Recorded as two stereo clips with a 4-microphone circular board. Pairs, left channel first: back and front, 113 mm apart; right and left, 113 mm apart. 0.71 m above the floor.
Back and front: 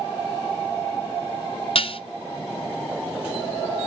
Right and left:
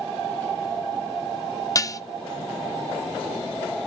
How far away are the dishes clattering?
About 0.5 m.